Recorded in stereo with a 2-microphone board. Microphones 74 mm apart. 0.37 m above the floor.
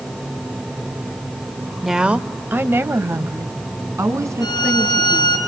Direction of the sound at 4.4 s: 80° left.